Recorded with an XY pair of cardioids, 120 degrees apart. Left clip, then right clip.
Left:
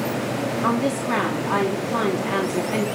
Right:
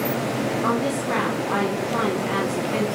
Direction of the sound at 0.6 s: 15° left.